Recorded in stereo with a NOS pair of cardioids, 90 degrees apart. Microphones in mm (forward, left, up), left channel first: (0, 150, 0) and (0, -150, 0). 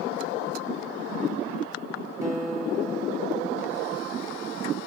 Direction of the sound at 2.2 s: 10° right.